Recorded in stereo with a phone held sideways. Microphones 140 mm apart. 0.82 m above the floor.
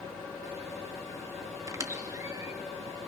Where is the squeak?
25° right (ahead or behind), 0.8 m.